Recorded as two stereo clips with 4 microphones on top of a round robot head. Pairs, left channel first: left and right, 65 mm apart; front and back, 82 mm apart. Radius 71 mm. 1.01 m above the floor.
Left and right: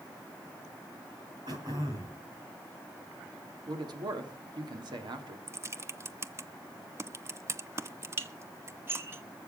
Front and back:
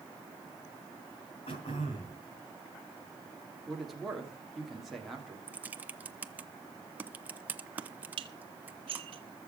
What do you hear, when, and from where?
1.5 s throat clearing: 40° right, 2.5 m
3.7 s a man speaking: 95° right, 3 m
5.5 s typing on a keyboard: 120° right, 1.0 m
8.2 s dishes clattering: 145° right, 1.5 m